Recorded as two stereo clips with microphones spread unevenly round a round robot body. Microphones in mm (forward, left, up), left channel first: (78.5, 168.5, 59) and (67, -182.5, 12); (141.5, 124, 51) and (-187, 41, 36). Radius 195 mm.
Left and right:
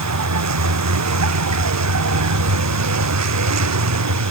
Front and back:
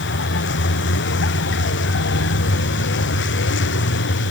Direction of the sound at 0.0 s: 50° right.